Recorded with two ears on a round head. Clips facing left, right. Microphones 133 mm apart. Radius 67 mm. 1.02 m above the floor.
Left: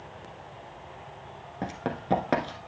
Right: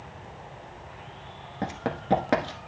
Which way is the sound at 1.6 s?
Centre (ahead or behind).